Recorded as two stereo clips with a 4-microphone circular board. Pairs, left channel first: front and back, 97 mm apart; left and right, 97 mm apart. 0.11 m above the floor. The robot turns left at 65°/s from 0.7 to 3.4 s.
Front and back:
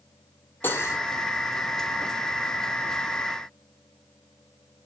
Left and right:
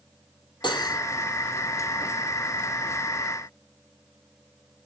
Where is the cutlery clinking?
65° left, 1.7 m; by 1.0 s 45° left, 1.7 m.